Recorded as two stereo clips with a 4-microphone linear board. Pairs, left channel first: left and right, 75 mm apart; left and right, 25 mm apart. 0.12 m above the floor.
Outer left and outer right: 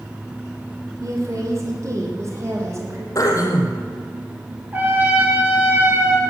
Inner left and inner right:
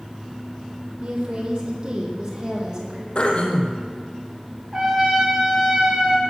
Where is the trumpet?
25° right (ahead or behind), 3 m.